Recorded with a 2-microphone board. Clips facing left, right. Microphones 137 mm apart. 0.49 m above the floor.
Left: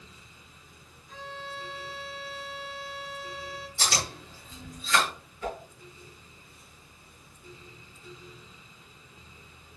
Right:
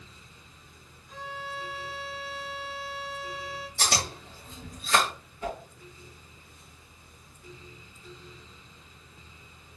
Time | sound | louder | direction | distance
1.1 | a violin | right 2 dB | centre (ahead or behind) | 1.1 m
3.8 | chewing | right 2 dB | 60° right (ahead or behind) | 2 m
5.4 | a whoosh | even | 30° right (ahead or behind) | 3 m